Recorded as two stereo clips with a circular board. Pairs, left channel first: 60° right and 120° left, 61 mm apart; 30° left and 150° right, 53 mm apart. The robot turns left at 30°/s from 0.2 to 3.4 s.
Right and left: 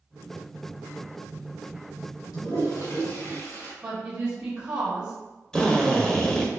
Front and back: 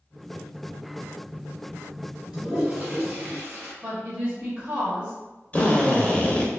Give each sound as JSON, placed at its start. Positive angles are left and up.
{"t": 2.3, "sound": "a toilet flushing", "azimuth_deg": -70, "distance_m": 2.0}
{"t": 3.8, "sound": "a woman speaking", "azimuth_deg": 165, "distance_m": 1.0}
{"t": 5.5, "sound": "a drill", "azimuth_deg": 10, "distance_m": 0.6}